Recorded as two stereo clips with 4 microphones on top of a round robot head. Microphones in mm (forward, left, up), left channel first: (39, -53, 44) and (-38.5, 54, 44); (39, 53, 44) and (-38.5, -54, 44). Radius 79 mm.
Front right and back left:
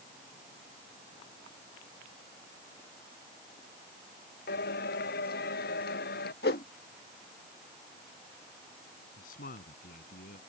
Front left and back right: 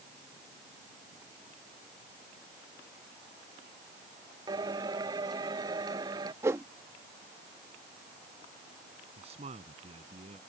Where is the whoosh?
55° right.